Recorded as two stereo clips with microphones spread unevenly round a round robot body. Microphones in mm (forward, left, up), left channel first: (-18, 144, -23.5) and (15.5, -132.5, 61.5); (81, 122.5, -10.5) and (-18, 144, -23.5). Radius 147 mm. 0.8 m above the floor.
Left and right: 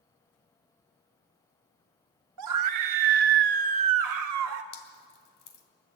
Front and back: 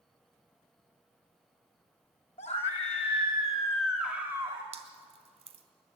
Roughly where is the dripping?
Behind left.